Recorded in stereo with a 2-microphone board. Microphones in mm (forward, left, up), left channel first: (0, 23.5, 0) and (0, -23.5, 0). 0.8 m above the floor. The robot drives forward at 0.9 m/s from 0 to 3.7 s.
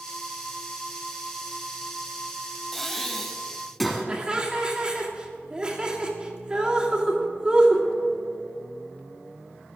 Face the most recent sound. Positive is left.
turn(degrees=-20)  # may be behind; listen again after turning